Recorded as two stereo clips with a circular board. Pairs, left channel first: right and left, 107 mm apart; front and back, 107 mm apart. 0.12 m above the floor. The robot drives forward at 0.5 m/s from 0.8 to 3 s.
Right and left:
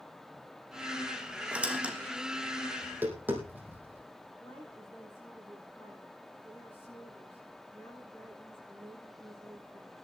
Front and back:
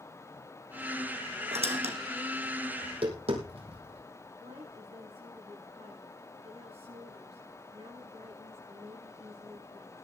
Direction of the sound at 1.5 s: 170° left.